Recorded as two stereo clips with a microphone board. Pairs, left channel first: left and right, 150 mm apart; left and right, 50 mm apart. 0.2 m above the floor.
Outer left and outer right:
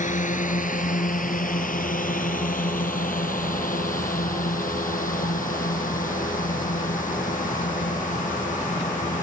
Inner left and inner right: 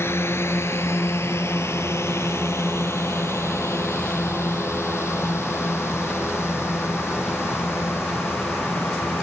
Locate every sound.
0.0 s a drone: 65° left (ahead or behind)